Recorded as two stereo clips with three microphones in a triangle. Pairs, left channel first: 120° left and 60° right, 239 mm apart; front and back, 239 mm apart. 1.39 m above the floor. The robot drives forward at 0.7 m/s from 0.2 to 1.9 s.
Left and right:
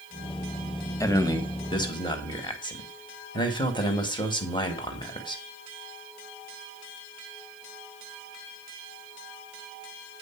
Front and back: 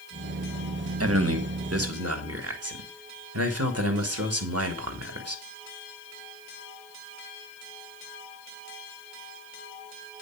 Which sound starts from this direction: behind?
A man speaking, at 1.0 s.